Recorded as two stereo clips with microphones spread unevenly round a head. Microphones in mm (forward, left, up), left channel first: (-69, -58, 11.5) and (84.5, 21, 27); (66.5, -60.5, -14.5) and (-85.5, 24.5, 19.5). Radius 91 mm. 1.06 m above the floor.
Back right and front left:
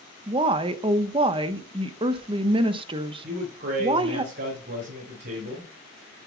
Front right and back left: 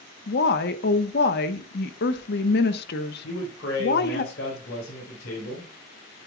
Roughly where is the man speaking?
Ahead.